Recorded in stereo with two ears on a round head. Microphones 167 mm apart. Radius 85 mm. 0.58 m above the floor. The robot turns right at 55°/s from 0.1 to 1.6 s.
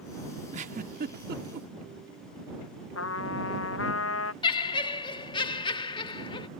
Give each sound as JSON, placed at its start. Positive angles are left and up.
{"t": 0.5, "sound": "a giggle", "side_deg": -35}
{"t": 3.0, "sound": "a trumpet", "side_deg": 85}
{"t": 4.4, "sound": "laughter", "side_deg": 25}